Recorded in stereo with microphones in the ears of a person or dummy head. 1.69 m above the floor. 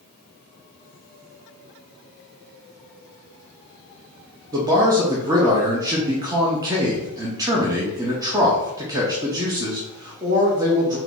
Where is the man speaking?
15° right (ahead or behind), 0.5 m.